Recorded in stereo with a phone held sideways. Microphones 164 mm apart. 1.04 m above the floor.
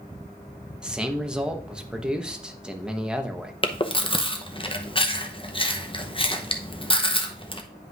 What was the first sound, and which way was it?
A man speaking, 5° right (ahead or behind).